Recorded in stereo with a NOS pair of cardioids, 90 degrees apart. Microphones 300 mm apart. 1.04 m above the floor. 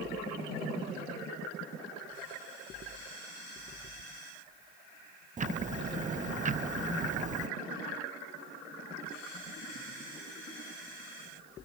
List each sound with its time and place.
5.4 s ticking: 25° right, 0.9 m